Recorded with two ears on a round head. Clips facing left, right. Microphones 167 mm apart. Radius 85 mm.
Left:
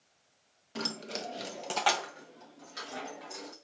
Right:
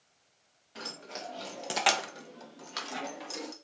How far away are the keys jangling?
About 1.1 m.